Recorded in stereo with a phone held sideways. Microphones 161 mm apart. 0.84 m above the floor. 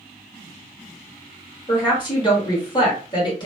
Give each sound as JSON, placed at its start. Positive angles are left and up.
{"t": 1.7, "sound": "a woman speaking", "side_deg": 30, "distance_m": 1.7}